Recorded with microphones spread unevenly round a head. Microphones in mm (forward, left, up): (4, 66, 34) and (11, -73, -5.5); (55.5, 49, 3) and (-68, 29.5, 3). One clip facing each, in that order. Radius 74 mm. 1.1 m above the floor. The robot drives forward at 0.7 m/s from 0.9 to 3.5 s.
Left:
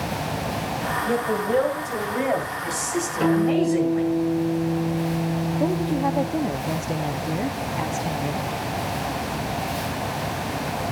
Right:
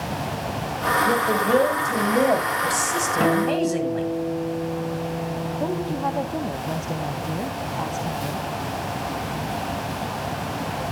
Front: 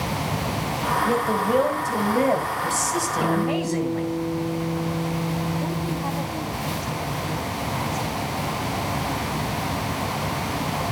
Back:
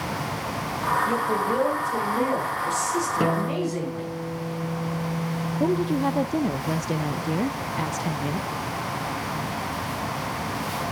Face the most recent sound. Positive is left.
turn(degrees=175)